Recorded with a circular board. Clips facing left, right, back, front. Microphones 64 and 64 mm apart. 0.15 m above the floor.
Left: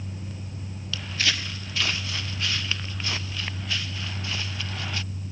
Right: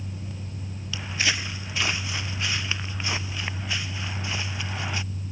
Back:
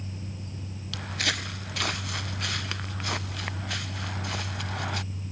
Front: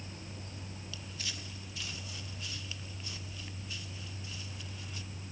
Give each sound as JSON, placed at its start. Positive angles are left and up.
{"t": 0.9, "sound": "footsteps", "azimuth_deg": -160}